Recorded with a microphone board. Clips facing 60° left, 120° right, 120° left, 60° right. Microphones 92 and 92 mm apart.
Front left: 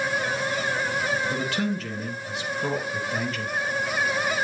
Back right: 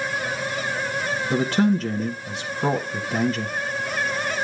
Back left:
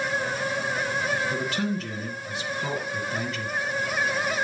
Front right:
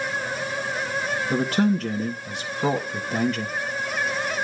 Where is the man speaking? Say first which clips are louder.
Back right 7 dB, front right 6 dB; 85° right, 1.8 m.